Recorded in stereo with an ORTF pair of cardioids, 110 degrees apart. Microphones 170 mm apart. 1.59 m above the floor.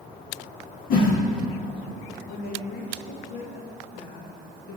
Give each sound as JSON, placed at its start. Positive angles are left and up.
{"t": 0.9, "sound": "a whoosh", "azimuth_deg": 60, "distance_m": 2.5}
{"t": 2.3, "sound": "a woman speaking", "azimuth_deg": 65, "distance_m": 2.0}